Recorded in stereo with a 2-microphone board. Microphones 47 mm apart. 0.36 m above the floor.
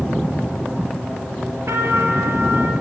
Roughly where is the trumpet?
Right.